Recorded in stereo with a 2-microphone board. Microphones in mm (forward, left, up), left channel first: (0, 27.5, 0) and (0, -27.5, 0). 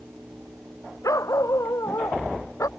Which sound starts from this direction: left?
A dog barking, at 1.0 s.